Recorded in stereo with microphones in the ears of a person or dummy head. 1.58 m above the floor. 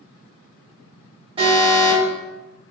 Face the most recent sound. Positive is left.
turn(degrees=-25)  # may be behind; listen again after turning